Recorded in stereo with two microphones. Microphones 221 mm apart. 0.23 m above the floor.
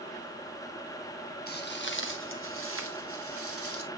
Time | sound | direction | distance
1.5 | footsteps | 45° left (ahead or behind) | 1.0 m